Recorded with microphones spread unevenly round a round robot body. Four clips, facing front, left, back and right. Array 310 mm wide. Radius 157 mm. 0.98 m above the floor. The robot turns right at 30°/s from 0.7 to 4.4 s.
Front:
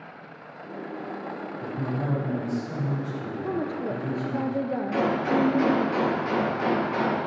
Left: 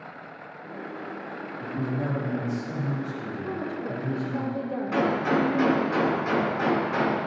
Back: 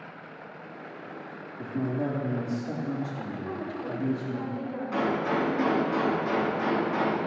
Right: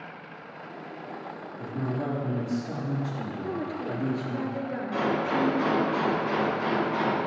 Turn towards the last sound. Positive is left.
turn(degrees=65)